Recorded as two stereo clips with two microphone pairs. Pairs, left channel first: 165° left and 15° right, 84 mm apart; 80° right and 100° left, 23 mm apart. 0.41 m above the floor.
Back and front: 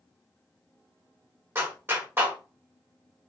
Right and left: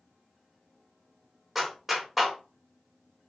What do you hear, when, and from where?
1.6 s a clap: 30° left, 1.1 m